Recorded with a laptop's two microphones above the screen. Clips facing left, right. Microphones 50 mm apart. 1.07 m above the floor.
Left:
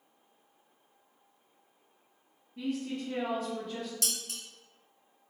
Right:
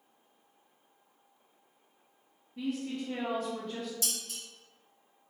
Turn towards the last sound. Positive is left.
turn(degrees=65)  # may be behind; listen again after turning